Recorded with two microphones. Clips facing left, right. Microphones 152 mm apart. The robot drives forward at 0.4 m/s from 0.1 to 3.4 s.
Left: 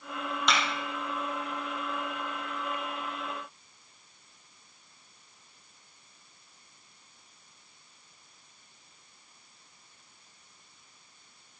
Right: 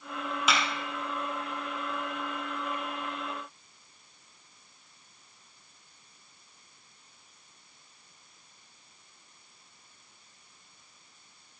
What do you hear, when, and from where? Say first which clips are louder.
0.5 s a clap: even; 5° right (ahead or behind), 5 m